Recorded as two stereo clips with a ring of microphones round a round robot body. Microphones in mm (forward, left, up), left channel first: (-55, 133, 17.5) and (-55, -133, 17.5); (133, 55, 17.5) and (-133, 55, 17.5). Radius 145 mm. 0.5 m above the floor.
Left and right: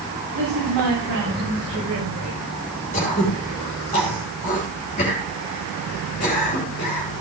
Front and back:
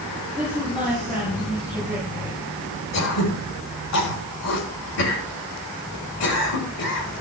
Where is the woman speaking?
75° right, 8 m; by 2.5 s 60° right, 8 m.